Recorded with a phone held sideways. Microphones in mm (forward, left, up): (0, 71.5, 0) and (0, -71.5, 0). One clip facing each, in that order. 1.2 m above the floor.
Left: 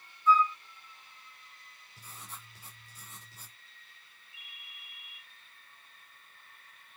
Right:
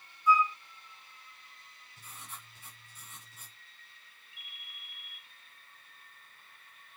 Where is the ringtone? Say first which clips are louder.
Even; 30° left (ahead or behind), 5.5 m.